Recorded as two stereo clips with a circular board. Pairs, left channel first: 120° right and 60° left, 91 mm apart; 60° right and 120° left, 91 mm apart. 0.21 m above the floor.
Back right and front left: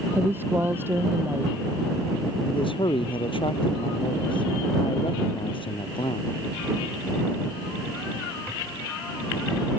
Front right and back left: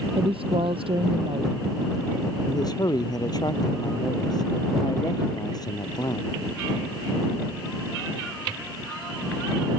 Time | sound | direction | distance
0.1 | a woman speaking | 125° left | ?
2.5 | a man speaking | 100° right | ?